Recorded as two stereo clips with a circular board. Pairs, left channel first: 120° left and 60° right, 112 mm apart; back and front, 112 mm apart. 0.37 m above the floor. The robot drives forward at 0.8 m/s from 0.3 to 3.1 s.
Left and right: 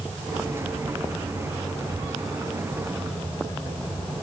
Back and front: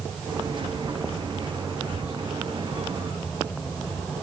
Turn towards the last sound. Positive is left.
turn(degrees=170)